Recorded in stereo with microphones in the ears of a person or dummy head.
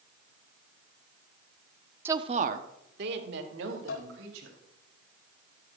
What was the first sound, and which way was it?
A woman speaking, 10° right (ahead or behind).